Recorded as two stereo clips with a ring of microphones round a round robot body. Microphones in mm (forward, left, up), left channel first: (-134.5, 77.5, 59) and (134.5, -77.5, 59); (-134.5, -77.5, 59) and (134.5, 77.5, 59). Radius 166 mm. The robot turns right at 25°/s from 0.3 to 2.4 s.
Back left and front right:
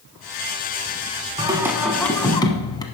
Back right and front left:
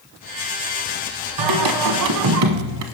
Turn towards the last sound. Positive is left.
turn(degrees=70)